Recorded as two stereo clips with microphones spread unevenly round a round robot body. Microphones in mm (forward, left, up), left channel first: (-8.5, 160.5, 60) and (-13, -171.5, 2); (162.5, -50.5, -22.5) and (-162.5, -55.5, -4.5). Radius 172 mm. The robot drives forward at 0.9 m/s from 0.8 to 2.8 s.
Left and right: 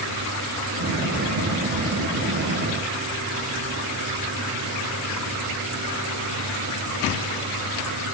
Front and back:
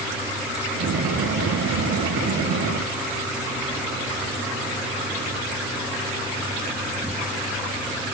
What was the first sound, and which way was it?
Only background noise.